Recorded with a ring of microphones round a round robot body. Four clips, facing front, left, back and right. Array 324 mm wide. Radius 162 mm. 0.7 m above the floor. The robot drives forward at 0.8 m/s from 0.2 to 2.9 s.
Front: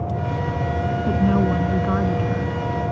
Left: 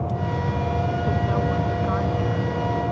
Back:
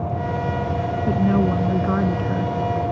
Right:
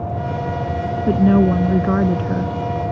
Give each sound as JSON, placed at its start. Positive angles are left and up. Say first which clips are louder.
{"t": 1.1, "sound": "a woman speaking", "louder": "right 9 dB, back 1 dB", "azimuth_deg": -85}